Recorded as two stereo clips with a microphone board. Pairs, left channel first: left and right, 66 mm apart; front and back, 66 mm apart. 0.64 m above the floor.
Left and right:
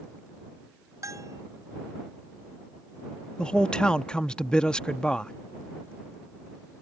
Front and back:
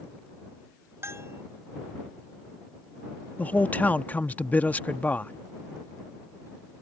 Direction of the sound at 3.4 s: 25° left.